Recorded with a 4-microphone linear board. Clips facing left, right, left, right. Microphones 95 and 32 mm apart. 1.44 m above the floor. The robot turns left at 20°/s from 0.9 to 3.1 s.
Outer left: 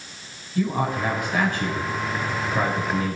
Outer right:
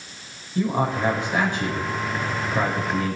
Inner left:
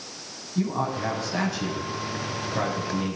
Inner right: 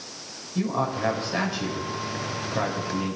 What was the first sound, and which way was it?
A man speaking, 30° right (ahead or behind).